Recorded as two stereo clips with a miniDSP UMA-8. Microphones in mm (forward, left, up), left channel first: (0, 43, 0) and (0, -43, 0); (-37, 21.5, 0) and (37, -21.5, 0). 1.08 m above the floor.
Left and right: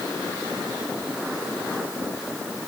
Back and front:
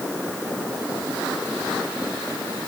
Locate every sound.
Only background noise.